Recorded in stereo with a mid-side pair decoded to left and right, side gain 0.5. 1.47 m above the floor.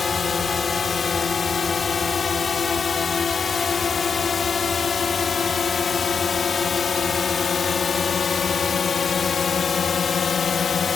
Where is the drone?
35° left; by 11.0 s 40° left.